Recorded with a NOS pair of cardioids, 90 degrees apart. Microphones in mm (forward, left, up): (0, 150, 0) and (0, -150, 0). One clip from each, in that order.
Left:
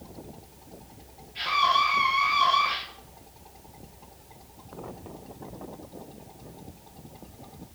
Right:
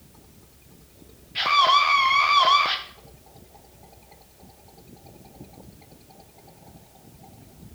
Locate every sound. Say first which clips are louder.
1.4 s a scream: right 5 dB; 65° right, 1.4 m